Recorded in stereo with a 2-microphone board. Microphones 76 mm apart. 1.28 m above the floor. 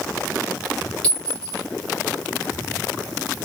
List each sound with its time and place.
1.0 s a clink: 15° left (ahead or behind), 2 m